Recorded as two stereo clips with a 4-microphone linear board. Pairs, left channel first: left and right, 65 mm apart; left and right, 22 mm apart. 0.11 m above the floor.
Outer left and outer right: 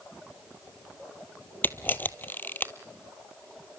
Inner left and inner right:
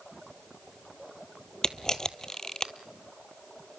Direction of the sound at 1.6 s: 30° left (ahead or behind).